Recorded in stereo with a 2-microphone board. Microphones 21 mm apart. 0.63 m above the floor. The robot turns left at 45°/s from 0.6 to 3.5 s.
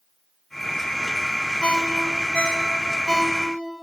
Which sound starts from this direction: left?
A ringtone, at 1.6 s.